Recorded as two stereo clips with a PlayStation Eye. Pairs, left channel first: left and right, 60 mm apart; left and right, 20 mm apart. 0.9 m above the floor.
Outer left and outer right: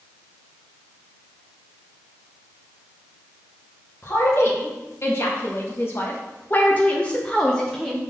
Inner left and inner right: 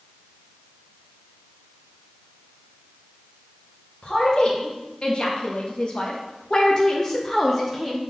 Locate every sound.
4.0 s a woman speaking: 45° left (ahead or behind), 1.8 m; by 8.0 s centre (ahead or behind), 1.0 m